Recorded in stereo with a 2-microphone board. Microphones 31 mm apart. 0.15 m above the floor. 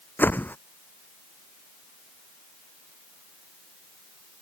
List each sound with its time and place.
0.2 s a whoosh: 80° left